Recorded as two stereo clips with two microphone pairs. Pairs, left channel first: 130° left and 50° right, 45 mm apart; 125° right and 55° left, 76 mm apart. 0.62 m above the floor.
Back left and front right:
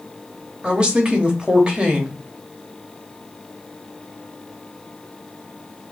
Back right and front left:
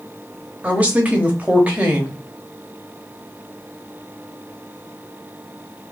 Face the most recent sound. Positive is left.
turn(degrees=0)